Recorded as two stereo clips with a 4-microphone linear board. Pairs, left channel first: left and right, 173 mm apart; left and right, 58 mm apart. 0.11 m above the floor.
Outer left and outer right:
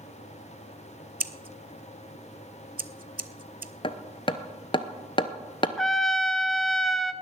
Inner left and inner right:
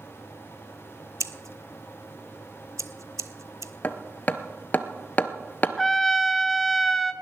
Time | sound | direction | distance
1.2 | scissors | 65° right (ahead or behind) | 0.6 m
3.8 | hammering | 35° left (ahead or behind) | 0.8 m
5.8 | a trumpet | centre (ahead or behind) | 0.6 m